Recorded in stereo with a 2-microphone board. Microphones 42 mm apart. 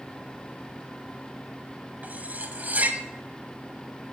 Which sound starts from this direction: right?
Cutlery clinking, at 2.0 s.